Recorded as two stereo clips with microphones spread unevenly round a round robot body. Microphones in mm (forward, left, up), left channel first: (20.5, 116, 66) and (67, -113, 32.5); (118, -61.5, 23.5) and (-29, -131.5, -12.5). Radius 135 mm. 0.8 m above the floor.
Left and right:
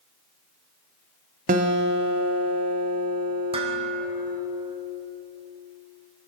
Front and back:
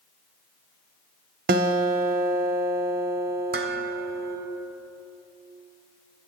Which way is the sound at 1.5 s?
140° right.